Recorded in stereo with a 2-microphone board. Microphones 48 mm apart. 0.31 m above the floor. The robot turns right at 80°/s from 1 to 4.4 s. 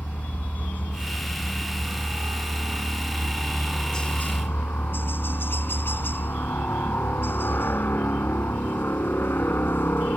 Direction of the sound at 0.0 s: 140° left.